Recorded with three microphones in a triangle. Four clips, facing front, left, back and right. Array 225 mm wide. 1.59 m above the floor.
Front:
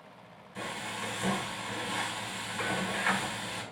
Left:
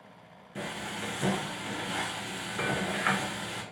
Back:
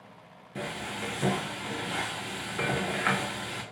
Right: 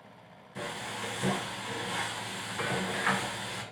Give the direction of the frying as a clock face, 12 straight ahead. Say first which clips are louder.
Left 1 dB, back 2 dB; 7 o'clock.